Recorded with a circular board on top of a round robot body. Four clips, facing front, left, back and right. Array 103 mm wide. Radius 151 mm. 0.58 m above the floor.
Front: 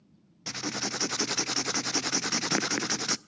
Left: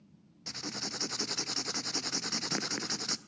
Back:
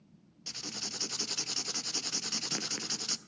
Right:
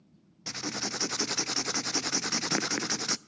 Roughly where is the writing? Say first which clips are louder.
Right 5 dB, front 11 dB; ahead right.